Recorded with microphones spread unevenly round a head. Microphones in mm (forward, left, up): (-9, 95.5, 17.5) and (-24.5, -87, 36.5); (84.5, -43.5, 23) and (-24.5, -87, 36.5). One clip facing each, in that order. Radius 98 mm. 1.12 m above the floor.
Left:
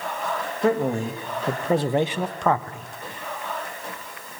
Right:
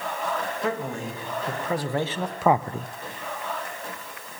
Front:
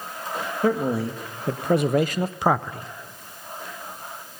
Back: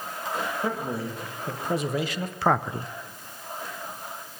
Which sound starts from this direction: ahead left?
A man speaking, at 0.6 s.